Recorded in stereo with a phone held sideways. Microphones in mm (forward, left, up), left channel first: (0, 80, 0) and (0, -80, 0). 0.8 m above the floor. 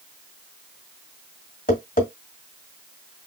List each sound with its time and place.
1.7 s tapping: 55° left (ahead or behind), 2 m